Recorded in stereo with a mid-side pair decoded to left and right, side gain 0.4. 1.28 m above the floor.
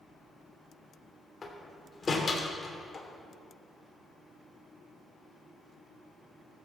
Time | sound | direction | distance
1.4 | a door slam | 35° left | 3 m